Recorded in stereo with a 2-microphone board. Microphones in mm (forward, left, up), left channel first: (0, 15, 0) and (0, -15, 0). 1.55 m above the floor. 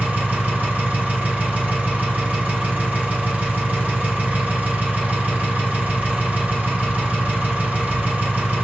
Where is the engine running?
60° right (ahead or behind), 1.3 m.